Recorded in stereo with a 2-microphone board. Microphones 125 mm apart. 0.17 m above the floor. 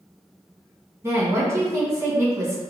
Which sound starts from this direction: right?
A woman speaking, at 1.0 s.